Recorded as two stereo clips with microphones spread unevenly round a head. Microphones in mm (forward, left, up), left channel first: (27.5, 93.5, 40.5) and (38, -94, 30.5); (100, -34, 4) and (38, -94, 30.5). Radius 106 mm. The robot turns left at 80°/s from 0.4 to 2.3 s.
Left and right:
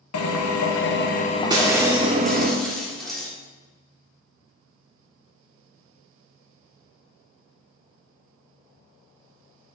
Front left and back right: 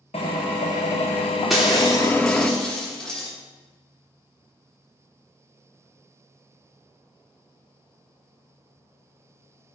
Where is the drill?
110° left, 1.0 m; by 2.5 s 40° right, 1.0 m.